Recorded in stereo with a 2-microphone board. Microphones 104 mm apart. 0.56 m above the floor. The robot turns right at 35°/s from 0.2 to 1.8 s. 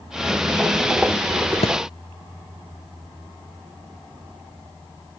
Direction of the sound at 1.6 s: 70° left (ahead or behind).